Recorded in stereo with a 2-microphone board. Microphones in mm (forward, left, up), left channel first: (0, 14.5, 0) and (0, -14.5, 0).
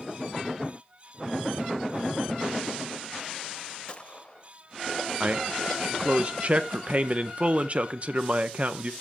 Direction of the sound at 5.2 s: 40° right (ahead or behind).